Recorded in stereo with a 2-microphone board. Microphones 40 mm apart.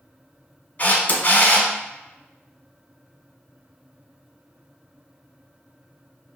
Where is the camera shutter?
40° left (ahead or behind), 1.0 m.